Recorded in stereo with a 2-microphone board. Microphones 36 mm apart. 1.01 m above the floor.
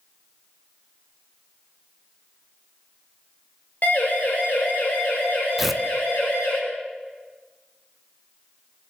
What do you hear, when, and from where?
3.8 s a siren: 50° left (ahead or behind), 5 m; by 6.6 s 55° left (ahead or behind), 9.5 m
5.6 s tearing paper: 5° right (ahead or behind), 0.8 m